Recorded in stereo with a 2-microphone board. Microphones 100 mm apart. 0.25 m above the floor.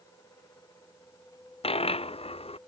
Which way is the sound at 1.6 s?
75° left (ahead or behind).